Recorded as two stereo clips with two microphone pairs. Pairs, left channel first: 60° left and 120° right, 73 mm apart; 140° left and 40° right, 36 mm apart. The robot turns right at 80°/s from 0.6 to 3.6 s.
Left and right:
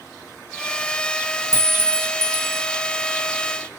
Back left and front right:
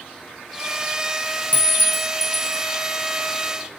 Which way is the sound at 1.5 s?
100° left.